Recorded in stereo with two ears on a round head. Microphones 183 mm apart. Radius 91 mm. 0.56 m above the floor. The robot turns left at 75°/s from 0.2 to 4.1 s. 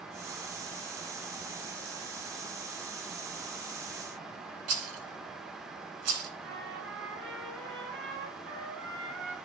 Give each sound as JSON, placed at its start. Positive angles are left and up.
{"t": 4.7, "sound": "a rattle", "side_deg": -90, "distance_m": 2.5}
{"t": 6.4, "sound": "a trumpet", "side_deg": -65, "distance_m": 4.0}